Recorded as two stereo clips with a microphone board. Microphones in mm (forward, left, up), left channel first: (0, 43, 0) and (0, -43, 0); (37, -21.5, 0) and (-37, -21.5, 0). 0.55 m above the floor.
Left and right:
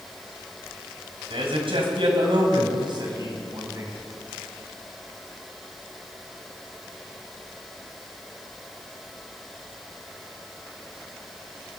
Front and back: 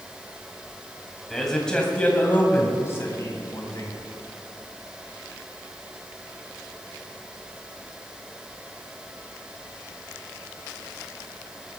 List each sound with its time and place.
1.3 s a man speaking: 90° right, 3 m; by 3.9 s 40° right, 3.5 m